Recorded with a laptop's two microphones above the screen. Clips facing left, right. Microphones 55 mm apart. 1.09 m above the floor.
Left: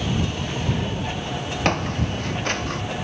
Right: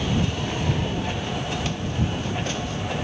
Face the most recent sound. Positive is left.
turn(degrees=55)  # may be behind; listen again after turning